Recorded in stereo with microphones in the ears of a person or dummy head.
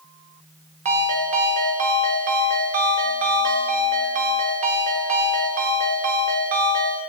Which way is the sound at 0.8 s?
35° right (ahead or behind).